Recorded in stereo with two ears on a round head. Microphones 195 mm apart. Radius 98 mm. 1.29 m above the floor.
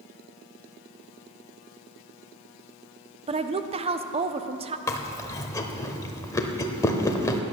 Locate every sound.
3.3 s a woman speaking: 30° right (ahead or behind), 0.7 m
4.9 s chewing: 15° left (ahead or behind), 1.1 m